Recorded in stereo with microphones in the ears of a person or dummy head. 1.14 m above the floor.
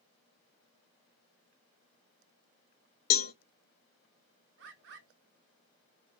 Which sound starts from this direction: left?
A cowbell, at 3.1 s.